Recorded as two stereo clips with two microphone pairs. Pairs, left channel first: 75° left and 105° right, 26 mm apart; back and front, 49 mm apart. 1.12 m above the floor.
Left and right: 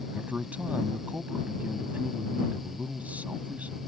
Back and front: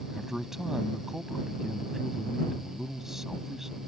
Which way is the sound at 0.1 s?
85° right.